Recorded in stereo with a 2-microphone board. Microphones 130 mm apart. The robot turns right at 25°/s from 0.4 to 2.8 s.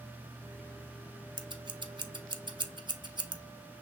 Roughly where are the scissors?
Right.